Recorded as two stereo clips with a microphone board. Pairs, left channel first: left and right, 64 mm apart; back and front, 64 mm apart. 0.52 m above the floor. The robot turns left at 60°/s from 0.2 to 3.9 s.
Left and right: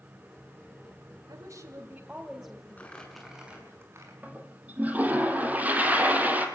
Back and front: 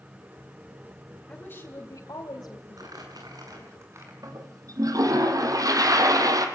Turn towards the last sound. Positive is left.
turn(degrees=-25)